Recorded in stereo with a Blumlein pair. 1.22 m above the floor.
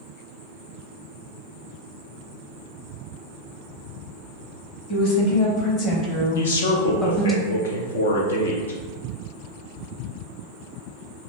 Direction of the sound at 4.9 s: 50° left.